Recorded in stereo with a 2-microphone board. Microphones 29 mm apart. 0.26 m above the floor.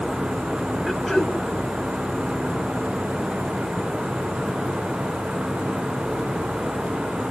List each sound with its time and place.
0.9 s throat clearing: 10° left (ahead or behind), 1.9 m